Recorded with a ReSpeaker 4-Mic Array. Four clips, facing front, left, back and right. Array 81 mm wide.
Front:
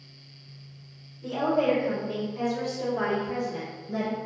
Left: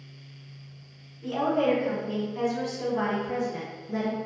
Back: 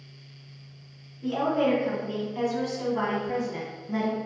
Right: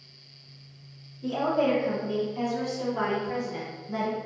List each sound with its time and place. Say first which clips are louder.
1.2 s a woman speaking: even, even; 145° left, 1.9 m; by 4.2 s 145° right, 2 m